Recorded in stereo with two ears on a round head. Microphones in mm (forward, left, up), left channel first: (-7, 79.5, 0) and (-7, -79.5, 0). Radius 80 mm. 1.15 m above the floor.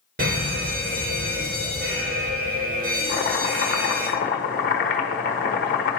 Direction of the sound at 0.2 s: 55° right (ahead or behind).